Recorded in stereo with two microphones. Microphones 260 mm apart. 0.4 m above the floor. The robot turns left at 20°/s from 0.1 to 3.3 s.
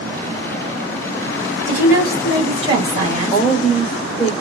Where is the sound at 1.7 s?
10° right, 1.9 m; by 3.5 s 45° right, 1.9 m.